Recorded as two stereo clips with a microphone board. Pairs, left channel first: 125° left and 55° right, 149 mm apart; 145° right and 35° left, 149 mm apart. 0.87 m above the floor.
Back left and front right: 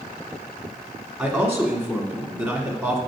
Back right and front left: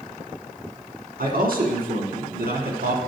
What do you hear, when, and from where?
1.2 s a man speaking: 20° left, 1.6 m